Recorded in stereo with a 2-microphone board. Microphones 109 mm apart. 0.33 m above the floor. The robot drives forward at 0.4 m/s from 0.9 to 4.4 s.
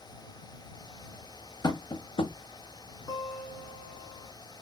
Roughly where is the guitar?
Left.